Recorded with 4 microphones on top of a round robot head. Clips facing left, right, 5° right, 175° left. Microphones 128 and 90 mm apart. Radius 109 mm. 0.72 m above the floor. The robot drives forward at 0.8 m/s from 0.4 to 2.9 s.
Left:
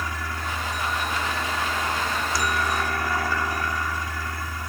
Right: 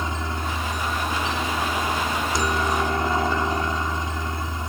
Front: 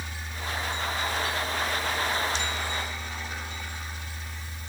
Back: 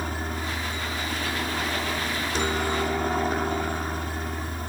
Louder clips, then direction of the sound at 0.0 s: Right 3 dB, back 7 dB; 150° right.